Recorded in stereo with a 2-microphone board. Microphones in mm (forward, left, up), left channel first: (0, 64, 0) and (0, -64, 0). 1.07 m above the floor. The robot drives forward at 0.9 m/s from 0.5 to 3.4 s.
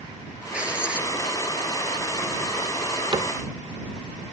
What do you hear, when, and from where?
0.5 s writing: 10° right (ahead or behind)
3.1 s a cupboard door: 40° right (ahead or behind); by 3.4 s 35° right (ahead or behind)